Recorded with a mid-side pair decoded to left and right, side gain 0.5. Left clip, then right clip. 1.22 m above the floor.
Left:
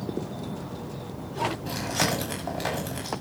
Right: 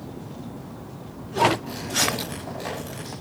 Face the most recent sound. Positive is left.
turn(degrees=35)